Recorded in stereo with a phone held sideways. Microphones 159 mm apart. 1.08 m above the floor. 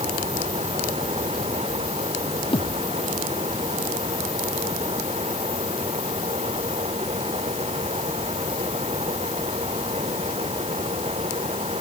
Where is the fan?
40° right (ahead or behind).